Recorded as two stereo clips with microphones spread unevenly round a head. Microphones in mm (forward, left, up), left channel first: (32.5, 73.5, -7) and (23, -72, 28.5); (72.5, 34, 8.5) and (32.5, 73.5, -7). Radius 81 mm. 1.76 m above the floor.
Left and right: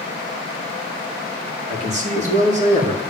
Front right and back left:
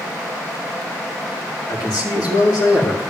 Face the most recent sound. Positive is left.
turn(degrees=-55)